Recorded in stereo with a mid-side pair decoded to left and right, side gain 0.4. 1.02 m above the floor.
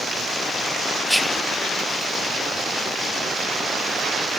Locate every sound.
1.1 s whispering: straight ahead, 1.6 m